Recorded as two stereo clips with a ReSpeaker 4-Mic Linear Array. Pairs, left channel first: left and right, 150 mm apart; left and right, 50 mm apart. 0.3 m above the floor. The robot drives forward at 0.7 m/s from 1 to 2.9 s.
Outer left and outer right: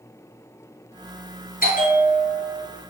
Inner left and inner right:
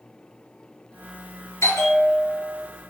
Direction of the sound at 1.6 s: 75° left (ahead or behind).